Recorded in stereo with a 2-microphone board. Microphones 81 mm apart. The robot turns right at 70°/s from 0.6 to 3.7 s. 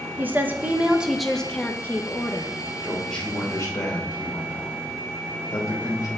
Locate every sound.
0.2 s a woman speaking: 45° right, 0.8 m; by 2.5 s 90° left, 0.8 m
2.8 s a man speaking: 15° right, 2.5 m; by 6.1 s 45° left, 2.5 m